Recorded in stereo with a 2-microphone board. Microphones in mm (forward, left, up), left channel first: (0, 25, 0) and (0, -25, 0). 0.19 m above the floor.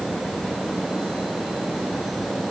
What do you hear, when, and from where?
Only background noise.